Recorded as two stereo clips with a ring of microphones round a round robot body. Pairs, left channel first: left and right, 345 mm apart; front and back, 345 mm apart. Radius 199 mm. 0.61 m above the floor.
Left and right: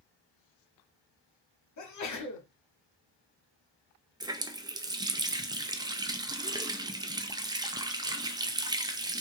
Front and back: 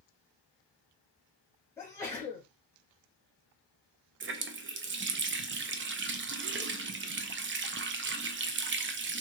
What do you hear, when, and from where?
1.8 s a sneeze: 80° left, 1.8 m
4.2 s a running tap: 160° right, 0.6 m